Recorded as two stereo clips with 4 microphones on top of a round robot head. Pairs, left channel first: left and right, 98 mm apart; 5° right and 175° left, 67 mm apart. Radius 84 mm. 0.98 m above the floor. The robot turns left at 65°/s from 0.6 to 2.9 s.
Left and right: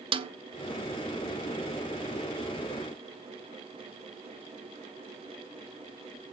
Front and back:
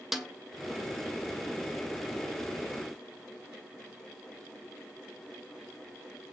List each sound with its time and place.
0.1 s a snare drum: 100° right, 1.4 m